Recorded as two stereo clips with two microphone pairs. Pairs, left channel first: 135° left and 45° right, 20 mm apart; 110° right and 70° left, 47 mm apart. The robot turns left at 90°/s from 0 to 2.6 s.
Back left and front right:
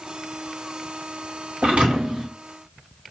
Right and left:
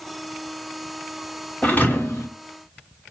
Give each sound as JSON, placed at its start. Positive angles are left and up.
{"t": 1.6, "sound": "a thud", "azimuth_deg": -45, "distance_m": 1.4}